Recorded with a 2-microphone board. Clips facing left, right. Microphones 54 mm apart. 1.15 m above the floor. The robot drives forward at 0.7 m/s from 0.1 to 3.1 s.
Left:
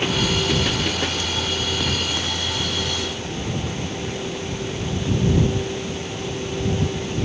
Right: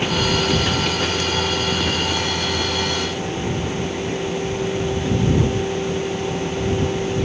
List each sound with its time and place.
Only background noise.